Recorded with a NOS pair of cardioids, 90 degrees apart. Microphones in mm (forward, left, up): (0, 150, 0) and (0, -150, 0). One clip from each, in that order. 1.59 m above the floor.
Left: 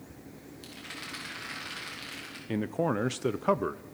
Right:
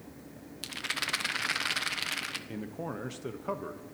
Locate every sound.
0.6 s a rattle: 65° right, 1.3 m
2.5 s a man speaking: 40° left, 0.6 m